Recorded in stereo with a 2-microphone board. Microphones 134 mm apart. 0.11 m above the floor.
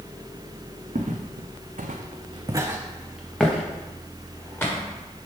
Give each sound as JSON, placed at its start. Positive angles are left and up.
{"t": 0.9, "sound": "footsteps", "side_deg": -70, "distance_m": 0.8}